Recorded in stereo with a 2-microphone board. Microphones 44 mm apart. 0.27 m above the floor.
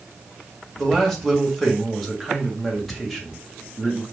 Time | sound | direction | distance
0.8 | a man speaking | 5° left (ahead or behind) | 1.3 m